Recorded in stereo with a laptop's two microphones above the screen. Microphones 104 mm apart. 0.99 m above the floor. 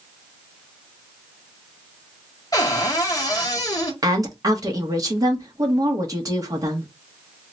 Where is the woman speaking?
35° right (ahead or behind), 1.0 m.